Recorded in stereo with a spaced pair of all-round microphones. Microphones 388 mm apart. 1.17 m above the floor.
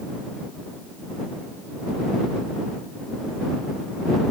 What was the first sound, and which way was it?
Only background noise.